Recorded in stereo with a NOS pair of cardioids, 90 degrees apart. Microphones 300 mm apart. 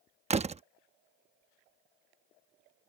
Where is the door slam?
20° right.